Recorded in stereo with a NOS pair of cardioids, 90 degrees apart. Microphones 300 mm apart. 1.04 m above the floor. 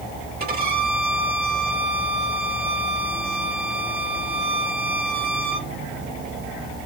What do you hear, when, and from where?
0.4 s a violin: 35° right, 1.7 m